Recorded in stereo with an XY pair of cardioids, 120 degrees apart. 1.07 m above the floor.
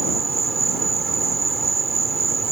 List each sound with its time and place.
0.0 s an insect: 30° right